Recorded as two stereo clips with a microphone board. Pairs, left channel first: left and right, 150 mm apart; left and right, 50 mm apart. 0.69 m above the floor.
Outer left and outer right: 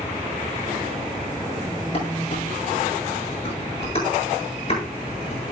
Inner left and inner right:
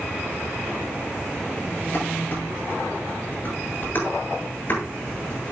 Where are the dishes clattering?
40° left (ahead or behind), 8.5 m.